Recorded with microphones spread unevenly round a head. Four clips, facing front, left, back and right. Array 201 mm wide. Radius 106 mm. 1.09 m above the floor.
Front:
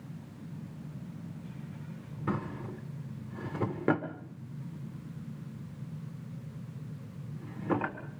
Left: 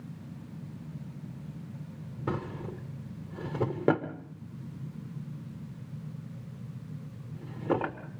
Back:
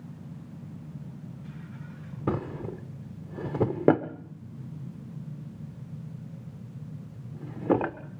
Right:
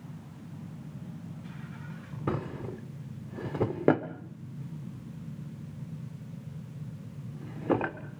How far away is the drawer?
About 1.4 m.